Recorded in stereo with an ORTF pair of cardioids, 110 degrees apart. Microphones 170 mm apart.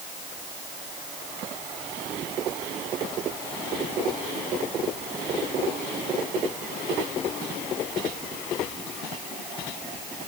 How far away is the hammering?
I don't hear hammering.